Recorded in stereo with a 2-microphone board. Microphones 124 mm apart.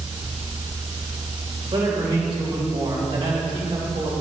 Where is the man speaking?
45° right (ahead or behind), 3 m.